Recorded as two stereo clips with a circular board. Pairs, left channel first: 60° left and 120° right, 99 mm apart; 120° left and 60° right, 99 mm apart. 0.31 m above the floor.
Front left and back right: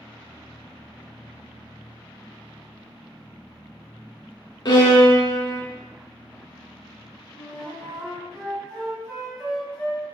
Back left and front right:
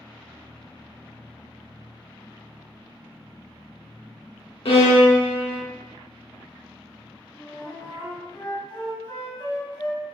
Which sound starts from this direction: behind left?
A flute, at 7.4 s.